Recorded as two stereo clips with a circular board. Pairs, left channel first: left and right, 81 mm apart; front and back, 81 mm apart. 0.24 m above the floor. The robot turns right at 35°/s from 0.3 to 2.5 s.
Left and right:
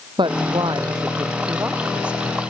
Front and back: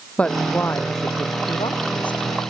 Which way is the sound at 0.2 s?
75° right.